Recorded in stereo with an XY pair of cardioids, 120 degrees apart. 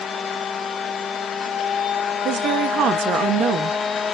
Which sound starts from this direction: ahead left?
A machine running, at 0.0 s.